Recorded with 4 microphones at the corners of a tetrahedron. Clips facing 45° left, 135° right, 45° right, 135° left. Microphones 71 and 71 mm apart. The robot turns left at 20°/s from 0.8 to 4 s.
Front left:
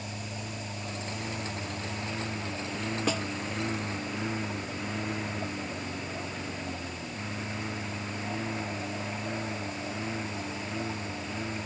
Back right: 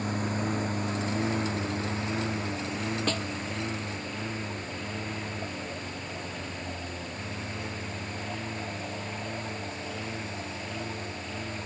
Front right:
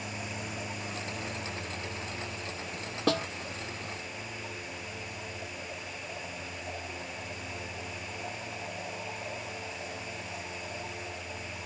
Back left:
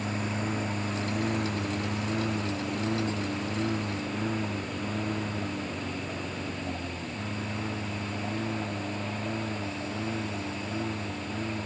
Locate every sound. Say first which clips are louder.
0.0 s a lawn mower: back right 9 dB, back left 7 dB; 175° right; by 11.7 s 115° left
3.1 s a snare drum: front left 3 dB, front right 4 dB; 35° right; by 3.3 s 40° right